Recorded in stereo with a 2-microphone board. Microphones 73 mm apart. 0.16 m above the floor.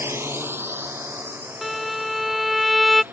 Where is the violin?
Centre (ahead or behind).